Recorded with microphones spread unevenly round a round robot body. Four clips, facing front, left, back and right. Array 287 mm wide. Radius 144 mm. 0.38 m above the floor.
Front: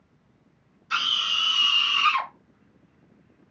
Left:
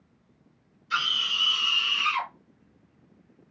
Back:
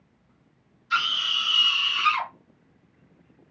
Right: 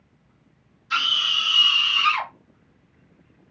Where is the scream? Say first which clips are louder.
Right 3 dB, back 2 dB; 30° right, 3.5 m; by 2.3 s 25° right, 4.5 m.